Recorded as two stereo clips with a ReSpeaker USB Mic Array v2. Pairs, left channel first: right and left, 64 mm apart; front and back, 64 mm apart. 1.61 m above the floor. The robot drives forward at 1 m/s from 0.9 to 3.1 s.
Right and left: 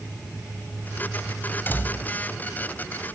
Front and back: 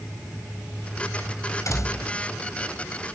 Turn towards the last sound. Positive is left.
turn(degrees=-40)